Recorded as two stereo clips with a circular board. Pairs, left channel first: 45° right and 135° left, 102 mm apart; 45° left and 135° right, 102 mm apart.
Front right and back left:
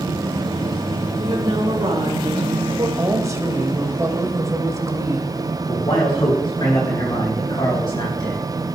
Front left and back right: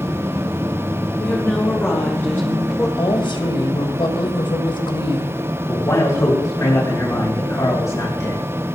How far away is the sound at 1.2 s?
About 2 m.